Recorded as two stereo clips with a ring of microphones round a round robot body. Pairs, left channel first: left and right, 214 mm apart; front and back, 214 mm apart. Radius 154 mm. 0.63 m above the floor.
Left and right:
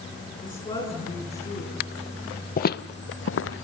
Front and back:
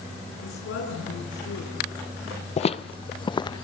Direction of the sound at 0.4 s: 20° left.